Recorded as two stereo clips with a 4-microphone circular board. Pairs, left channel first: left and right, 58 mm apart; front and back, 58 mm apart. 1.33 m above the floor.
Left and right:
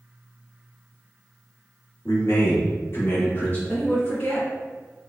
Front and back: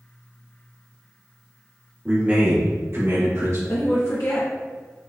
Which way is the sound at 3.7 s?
30° left.